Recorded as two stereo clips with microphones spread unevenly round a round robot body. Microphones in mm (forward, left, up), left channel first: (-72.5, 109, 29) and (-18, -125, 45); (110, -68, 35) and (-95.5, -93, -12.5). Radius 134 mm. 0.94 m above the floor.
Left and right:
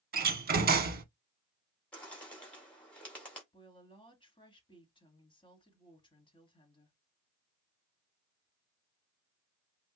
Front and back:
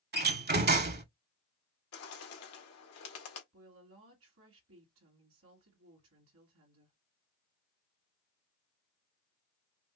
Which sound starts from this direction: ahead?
A bird, at 1.9 s.